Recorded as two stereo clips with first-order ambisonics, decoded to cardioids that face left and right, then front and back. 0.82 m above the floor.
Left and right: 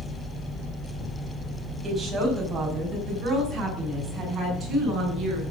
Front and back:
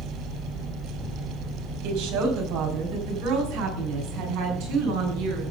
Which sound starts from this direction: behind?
A woman speaking, at 1.8 s.